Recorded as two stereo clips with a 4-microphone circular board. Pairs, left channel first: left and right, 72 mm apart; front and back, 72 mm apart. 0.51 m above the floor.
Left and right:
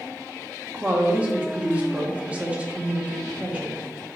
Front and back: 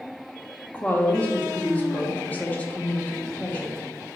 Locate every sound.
0.7 s a woman speaking: 40° right, 0.7 m